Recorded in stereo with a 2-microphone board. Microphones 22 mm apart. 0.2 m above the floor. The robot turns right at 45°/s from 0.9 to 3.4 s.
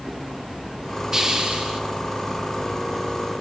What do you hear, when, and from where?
1.1 s a hiss: 150° right, 4 m; by 1.8 s 120° right, 4 m